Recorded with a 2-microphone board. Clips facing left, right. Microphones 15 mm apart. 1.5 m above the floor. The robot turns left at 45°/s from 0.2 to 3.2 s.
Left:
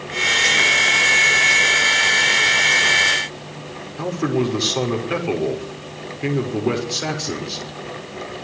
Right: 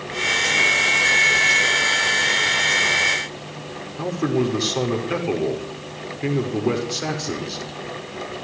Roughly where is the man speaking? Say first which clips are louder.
Left 1 dB; centre.